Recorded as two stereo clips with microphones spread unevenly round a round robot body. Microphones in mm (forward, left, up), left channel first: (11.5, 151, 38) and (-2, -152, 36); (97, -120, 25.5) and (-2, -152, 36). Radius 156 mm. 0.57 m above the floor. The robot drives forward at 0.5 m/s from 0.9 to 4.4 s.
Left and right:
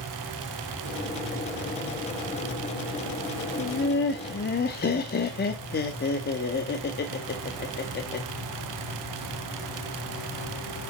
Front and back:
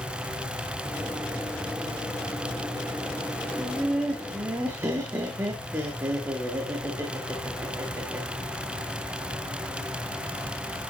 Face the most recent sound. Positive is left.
turn(degrees=130)